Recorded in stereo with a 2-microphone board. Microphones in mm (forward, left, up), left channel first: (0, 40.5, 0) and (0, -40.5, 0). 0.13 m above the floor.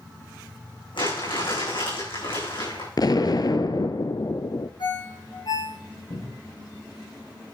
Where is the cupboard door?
60° left (ahead or behind), 3.5 m.